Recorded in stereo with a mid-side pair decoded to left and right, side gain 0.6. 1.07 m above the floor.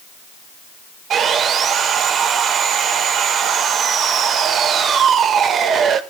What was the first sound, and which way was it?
Sawing, 50° right.